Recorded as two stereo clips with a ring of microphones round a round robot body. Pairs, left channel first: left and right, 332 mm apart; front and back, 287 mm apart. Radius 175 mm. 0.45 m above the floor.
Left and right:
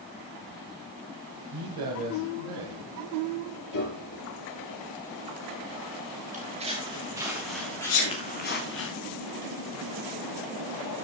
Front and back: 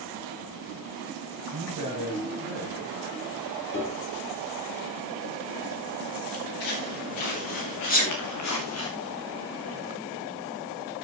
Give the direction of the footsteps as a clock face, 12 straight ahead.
1 o'clock.